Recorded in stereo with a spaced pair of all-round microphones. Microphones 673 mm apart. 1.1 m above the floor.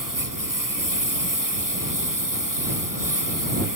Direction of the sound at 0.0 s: 30° right (ahead or behind).